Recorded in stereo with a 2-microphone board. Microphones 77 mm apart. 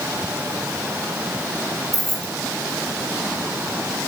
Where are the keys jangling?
Centre (ahead or behind), 1.5 m.